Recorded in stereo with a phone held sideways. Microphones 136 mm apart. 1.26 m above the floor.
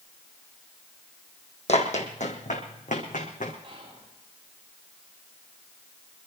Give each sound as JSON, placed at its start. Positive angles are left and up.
{"t": 1.7, "sound": "running footsteps", "side_deg": 55, "distance_m": 3.0}
{"t": 3.6, "sound": "whispering", "side_deg": -45, "distance_m": 8.0}